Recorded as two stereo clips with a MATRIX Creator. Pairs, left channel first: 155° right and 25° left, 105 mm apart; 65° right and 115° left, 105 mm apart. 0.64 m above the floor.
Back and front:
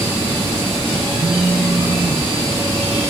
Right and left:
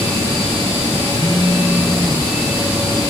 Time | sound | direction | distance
1.1 | a phone buzzing | 40° left | 3.5 m